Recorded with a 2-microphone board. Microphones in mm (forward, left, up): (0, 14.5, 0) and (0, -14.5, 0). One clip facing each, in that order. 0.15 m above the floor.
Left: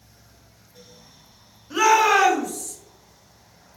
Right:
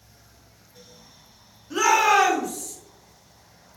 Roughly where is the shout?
Centre.